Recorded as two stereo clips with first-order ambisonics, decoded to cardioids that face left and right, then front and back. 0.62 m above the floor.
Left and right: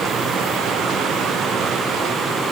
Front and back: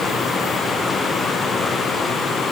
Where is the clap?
I don't hear a clap.